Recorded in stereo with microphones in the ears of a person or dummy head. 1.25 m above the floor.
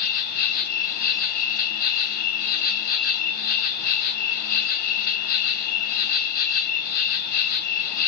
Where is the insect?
40° left (ahead or behind), 1.5 m.